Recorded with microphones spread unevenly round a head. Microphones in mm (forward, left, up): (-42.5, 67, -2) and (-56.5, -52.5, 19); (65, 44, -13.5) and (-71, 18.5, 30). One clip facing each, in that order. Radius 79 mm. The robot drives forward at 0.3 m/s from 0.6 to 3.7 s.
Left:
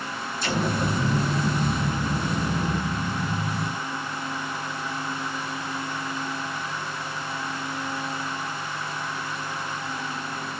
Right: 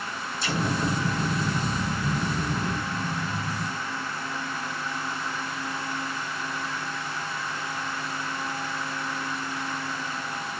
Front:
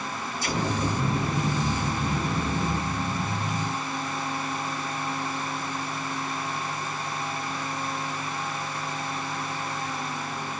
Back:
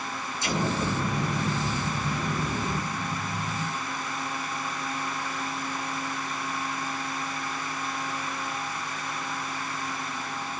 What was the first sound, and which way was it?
An explosion, 120° left.